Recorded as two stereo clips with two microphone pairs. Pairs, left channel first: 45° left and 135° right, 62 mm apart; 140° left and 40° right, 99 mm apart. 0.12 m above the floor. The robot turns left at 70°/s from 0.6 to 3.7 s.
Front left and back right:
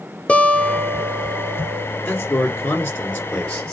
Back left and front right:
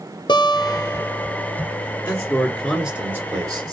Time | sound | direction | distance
0.3 | a guitar | 110° left | 0.8 m
2.0 | a man speaking | 90° left | 1.8 m